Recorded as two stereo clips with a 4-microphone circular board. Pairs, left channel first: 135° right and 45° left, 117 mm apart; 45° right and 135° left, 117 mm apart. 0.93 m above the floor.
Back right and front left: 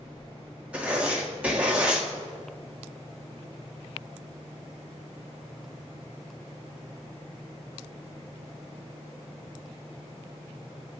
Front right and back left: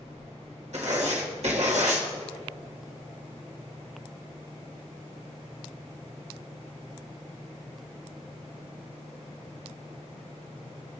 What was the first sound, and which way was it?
Writing, 125° left.